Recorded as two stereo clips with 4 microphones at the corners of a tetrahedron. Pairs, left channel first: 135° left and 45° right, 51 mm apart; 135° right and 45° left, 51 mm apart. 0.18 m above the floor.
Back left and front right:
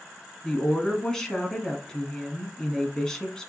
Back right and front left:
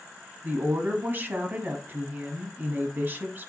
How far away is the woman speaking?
About 1.2 m.